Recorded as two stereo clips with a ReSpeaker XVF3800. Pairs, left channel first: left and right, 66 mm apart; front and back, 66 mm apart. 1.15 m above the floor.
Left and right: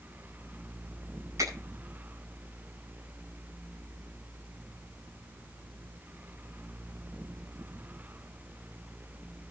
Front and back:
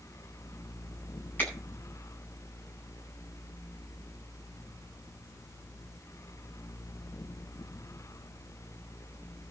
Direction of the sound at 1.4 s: 55° right.